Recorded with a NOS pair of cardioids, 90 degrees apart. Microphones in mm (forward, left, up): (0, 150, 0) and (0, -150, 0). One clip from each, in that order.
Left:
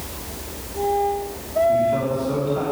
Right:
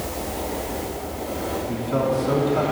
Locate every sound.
1.7 s a man speaking: 45° right, 3 m